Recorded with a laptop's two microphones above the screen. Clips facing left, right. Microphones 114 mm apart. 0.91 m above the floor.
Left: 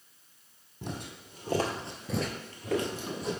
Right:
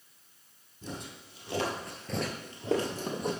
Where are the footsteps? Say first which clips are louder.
Left 2 dB; 65° left (ahead or behind), 1.8 m; by 3.3 s 55° right (ahead or behind), 1.6 m.